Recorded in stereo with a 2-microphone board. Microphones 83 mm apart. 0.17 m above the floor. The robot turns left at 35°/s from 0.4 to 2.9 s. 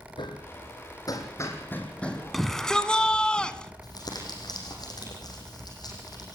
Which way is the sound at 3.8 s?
55° left (ahead or behind).